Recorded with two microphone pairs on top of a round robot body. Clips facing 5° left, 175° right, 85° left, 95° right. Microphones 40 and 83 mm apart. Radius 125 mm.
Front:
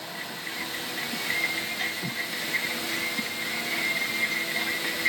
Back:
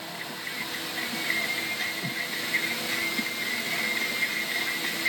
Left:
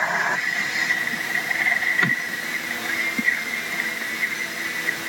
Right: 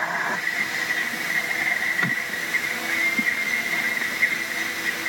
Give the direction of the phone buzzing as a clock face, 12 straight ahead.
I don't hear a phone buzzing.